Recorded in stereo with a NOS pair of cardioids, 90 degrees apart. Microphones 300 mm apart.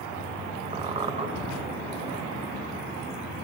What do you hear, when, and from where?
0.7 s a squeak: 20° right, 0.6 m